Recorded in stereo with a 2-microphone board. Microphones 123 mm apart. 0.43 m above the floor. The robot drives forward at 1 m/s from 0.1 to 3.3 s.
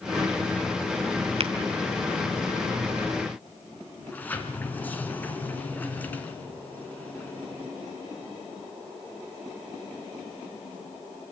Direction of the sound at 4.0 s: 15° left (ahead or behind).